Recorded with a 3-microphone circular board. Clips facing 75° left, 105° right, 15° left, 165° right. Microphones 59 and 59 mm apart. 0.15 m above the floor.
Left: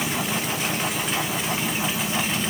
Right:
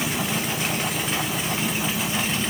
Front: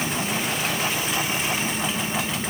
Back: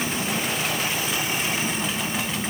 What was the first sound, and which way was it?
Only background noise.